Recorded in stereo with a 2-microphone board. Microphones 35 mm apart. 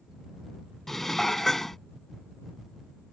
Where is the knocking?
I don't hear knocking.